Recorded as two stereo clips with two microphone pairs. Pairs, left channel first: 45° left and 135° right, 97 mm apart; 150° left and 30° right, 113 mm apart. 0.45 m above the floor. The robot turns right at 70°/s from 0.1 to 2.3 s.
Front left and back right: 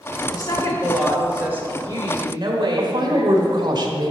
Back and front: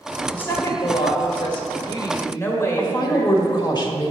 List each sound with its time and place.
0.3 s a woman speaking: 75° left, 1.8 m; by 3.7 s 145° right, 1.8 m
2.8 s a woman speaking: 165° right, 1.6 m